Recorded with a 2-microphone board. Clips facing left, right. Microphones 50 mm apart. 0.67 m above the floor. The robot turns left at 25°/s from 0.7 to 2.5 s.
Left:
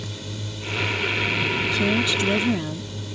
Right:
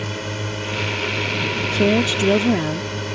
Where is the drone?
65° right; by 3.1 s 110° right.